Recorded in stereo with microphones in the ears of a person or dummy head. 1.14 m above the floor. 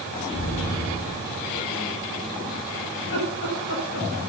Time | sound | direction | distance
0.3 | an explosion | 65° left (ahead or behind) | 7 m
3.0 | laughter | 50° left (ahead or behind) | 7 m